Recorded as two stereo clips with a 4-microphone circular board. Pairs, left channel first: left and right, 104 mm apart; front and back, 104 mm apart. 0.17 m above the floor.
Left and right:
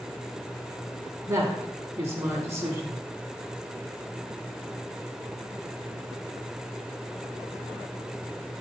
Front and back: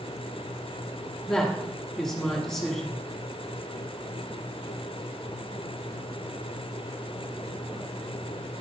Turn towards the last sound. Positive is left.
turn(degrees=-75)